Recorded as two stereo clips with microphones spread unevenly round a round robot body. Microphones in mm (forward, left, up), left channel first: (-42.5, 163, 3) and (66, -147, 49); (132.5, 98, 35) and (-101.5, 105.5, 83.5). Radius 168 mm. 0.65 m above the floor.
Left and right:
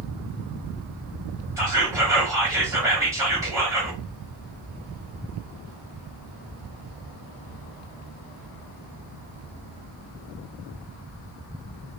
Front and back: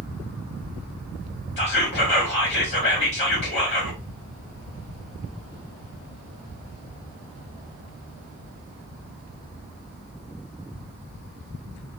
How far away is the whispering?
About 1.1 m.